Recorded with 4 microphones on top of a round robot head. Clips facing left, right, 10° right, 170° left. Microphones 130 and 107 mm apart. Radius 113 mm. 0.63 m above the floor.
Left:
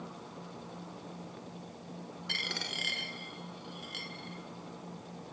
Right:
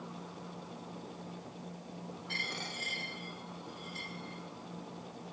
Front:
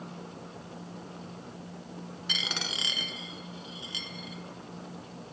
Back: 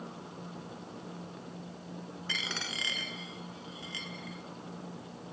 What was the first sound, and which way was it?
A dropped coin, 55° left.